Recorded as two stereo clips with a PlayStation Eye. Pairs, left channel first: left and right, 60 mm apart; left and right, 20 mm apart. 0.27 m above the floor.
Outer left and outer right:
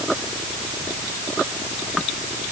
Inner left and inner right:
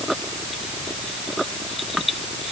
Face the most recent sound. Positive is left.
No sound to turn to.